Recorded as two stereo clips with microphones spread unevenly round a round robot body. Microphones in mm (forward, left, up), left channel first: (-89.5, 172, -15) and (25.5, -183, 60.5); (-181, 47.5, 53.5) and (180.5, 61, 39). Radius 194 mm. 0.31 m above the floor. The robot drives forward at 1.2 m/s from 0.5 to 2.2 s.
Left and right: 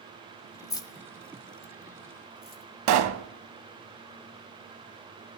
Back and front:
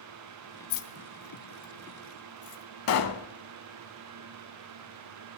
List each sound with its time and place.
0.7 s keys jangling: 175° left, 1.1 m; by 2.6 s straight behind, 3 m
2.9 s a pop: 125° right, 0.8 m